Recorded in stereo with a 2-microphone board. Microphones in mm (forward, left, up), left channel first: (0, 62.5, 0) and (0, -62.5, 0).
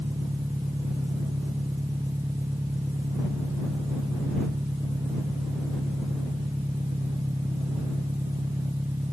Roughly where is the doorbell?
No doorbell in this recording.